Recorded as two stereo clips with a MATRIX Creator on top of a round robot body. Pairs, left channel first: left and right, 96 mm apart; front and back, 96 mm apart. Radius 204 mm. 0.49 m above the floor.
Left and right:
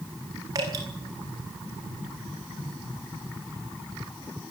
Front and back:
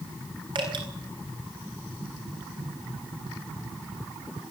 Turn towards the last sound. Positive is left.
turn(degrees=-145)